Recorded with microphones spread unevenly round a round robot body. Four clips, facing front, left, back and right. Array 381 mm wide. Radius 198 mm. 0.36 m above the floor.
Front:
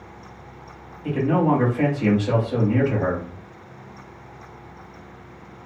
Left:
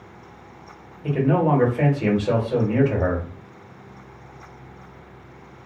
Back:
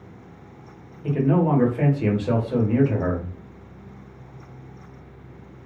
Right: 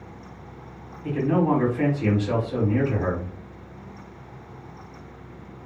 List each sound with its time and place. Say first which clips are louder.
1.0 s a man speaking: left 2 dB, front 1 dB; 130° left, 1.4 m